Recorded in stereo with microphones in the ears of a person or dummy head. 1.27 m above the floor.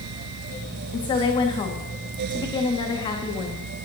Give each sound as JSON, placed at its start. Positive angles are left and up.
{"t": 0.9, "sound": "a woman speaking", "side_deg": 25, "distance_m": 2.0}